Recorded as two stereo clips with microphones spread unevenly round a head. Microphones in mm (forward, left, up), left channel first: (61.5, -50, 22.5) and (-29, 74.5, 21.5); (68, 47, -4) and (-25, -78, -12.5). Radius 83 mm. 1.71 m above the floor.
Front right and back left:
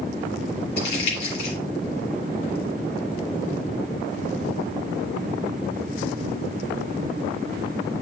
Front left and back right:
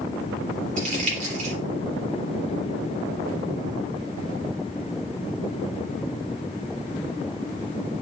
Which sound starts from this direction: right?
Crumpling, at 0.8 s.